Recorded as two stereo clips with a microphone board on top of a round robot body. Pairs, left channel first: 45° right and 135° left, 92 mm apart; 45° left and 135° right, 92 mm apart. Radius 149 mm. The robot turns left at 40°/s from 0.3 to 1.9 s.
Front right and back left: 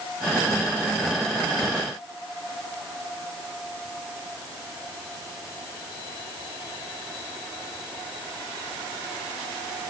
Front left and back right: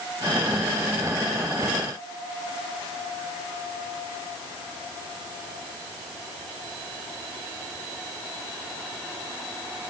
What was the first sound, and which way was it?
Only background noise.